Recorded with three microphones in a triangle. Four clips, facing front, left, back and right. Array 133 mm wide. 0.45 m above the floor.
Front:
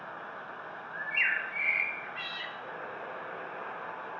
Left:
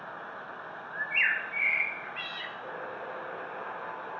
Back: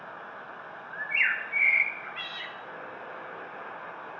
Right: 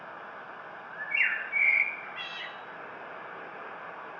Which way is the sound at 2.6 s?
70° left.